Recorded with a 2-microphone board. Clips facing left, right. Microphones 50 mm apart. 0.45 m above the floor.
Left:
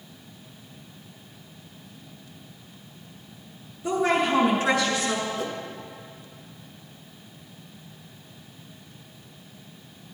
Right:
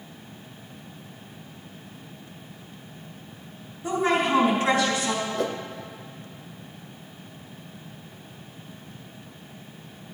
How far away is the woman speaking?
About 4 m.